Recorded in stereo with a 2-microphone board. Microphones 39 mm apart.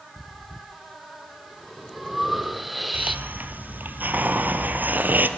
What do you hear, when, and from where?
0.2 s breathing: 5° right (ahead or behind), 1.2 m
2.9 s a hiss: 55° right (ahead or behind), 1.7 m